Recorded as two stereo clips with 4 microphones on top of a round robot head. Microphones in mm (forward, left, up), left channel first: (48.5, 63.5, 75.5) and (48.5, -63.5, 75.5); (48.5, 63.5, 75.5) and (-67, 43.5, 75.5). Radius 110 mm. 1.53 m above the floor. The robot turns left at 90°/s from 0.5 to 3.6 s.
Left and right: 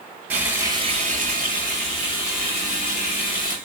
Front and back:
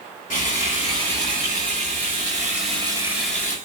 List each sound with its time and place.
0.3 s frying: 10° right, 8 m; by 3.6 s 75° left, 8 m